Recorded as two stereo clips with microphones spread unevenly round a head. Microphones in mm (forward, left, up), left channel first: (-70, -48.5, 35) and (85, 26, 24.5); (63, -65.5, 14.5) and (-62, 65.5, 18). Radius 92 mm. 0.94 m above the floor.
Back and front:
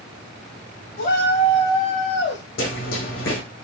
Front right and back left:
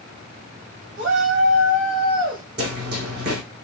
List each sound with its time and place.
1.0 s a shout: 165° left, 3 m; by 2.4 s straight behind, 2 m
2.6 s running footsteps: 165° left, 3 m